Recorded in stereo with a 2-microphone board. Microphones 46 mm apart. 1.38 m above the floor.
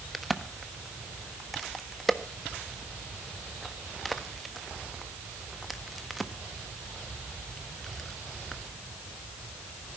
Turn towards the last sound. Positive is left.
turn(degrees=5)  # may be behind; listen again after turning